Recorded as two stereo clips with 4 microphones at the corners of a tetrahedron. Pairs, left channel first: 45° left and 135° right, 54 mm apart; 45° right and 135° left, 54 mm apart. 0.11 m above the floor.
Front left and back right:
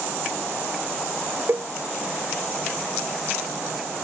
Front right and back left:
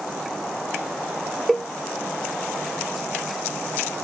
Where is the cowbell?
125° right.